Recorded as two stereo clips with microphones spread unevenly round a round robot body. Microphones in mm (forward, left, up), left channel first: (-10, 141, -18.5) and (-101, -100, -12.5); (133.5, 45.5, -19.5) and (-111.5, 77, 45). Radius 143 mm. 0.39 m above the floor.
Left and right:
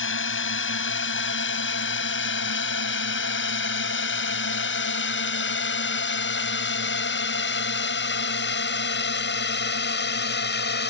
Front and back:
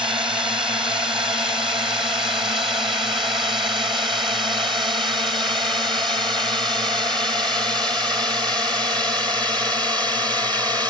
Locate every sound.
0.0 s a drone: 95° left; by 10.9 s 90° left